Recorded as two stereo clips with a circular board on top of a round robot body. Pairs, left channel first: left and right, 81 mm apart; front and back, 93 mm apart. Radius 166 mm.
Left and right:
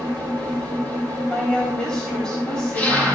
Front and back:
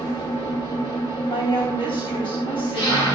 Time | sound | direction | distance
0.0 | an engine running | 20° left | 1.9 m
1.3 | a woman speaking | 10° left | 4 m